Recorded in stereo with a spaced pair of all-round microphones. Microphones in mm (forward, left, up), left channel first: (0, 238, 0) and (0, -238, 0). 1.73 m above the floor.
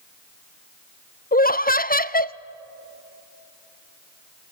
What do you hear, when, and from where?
1.3 s laughter: 20° left (ahead or behind), 0.5 m